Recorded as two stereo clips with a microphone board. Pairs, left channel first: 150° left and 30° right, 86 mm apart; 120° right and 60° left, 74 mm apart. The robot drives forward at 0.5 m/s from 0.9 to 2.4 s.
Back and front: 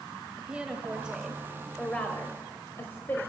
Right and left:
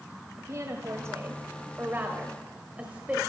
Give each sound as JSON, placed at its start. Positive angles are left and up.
{"t": 0.4, "sound": "a woman speaking", "azimuth_deg": 40, "distance_m": 1.1}